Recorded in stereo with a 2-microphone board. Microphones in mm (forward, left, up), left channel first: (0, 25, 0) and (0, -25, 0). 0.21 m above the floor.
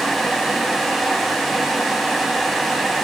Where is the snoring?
I don't hear snoring.